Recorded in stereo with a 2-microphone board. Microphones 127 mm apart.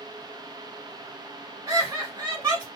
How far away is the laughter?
About 1.2 m.